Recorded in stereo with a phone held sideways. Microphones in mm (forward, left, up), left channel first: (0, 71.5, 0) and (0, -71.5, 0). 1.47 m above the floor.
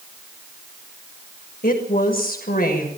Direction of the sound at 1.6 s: 85° left.